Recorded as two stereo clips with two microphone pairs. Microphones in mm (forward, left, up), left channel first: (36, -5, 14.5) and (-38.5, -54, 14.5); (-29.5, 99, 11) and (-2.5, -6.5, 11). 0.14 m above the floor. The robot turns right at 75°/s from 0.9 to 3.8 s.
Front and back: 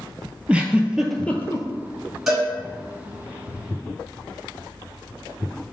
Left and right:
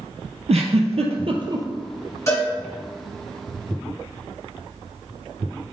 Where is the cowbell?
135° left, 2.0 m; by 2.5 s 150° left, 2.0 m.